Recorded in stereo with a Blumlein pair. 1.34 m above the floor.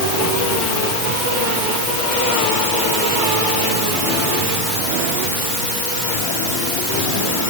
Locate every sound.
Only background noise.